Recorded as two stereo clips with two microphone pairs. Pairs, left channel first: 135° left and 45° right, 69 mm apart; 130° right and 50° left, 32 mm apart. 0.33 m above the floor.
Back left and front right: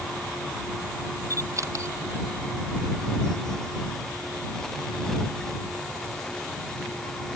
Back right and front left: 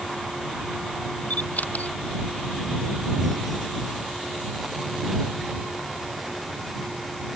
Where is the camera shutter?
90° right.